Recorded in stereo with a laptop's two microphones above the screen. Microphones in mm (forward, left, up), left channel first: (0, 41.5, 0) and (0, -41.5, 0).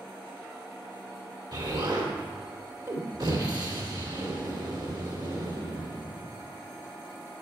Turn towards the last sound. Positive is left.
turn(degrees=-60)  # may be behind; listen again after turning